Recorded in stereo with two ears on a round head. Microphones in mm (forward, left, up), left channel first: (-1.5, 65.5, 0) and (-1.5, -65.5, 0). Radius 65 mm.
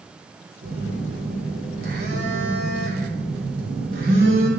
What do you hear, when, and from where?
0.6 s a phone buzzing: 70° right (ahead or behind), 3 m